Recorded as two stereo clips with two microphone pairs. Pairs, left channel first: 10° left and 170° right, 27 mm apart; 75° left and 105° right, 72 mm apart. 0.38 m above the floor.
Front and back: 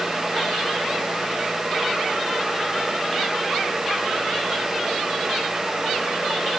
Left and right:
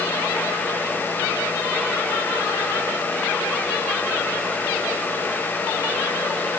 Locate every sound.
Only background noise.